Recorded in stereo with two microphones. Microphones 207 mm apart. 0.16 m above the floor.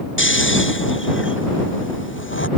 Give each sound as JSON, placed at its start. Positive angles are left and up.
{"t": 0.2, "sound": "snoring", "side_deg": 70}